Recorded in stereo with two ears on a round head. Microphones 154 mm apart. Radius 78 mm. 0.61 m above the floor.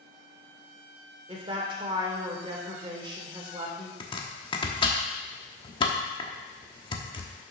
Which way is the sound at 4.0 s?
30° left (ahead or behind).